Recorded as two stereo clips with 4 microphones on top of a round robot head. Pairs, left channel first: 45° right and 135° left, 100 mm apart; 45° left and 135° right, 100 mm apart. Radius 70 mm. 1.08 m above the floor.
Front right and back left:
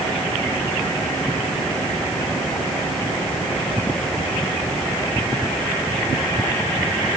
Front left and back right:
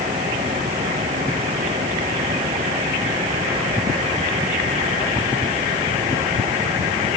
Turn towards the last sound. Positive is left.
No sound to turn to.